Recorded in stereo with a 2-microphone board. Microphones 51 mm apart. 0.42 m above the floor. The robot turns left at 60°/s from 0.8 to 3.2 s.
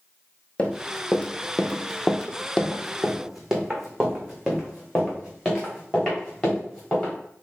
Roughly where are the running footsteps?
Left.